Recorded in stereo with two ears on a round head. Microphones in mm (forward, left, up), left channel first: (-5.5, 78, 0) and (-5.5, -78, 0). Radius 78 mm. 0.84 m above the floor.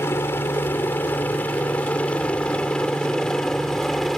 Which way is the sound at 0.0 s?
15° left (ahead or behind).